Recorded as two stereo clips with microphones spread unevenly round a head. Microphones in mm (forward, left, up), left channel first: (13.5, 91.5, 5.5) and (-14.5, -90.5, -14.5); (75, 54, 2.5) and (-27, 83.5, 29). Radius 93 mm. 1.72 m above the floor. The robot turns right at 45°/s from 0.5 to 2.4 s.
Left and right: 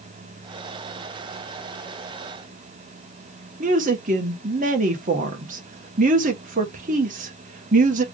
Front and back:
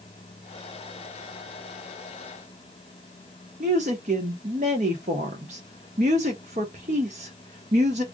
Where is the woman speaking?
150° right, 1.5 m.